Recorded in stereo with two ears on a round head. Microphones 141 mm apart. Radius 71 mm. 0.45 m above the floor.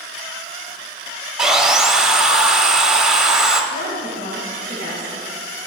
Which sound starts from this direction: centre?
Sawing, at 1.4 s.